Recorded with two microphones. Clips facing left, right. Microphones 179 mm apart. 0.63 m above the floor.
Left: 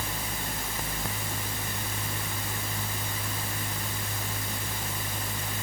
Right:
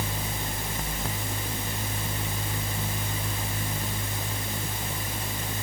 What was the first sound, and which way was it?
Only background noise.